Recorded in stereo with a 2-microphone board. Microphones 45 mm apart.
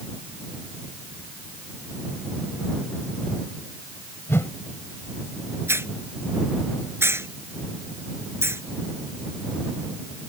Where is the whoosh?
65° left (ahead or behind).